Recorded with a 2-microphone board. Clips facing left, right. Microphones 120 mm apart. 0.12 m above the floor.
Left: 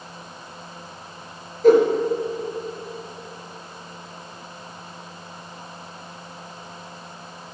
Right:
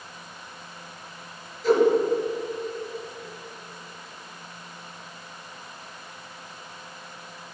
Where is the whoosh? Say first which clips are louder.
Left 6 dB; 50° left (ahead or behind), 1.4 m.